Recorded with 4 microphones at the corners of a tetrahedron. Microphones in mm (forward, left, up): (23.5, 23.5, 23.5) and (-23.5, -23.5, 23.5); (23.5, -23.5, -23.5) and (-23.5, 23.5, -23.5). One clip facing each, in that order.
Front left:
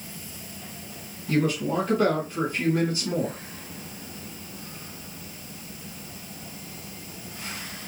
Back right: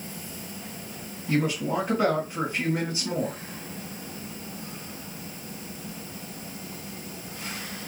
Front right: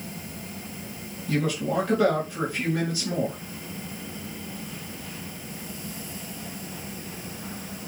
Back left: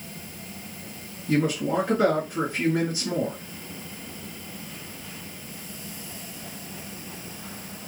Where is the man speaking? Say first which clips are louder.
Front left 1 dB, back left 2 dB; 175° left, 1.4 m.